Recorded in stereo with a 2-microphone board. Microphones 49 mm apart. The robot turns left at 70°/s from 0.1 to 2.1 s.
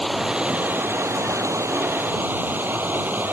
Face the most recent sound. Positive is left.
turn(degrees=-135)